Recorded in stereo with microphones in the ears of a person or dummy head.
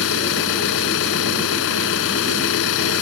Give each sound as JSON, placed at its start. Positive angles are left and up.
{"t": 0.0, "sound": "an engine running", "side_deg": 70}